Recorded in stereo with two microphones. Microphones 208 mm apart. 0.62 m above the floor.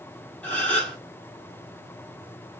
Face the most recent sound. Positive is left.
turn(degrees=5)  # may be behind; listen again after turning